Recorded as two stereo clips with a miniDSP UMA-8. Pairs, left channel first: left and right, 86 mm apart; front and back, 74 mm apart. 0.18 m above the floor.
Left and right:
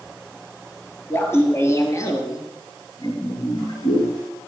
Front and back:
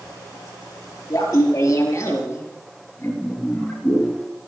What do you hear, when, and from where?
1.1 s laughter: 30° left, 3 m; by 4.5 s 75° left, 3 m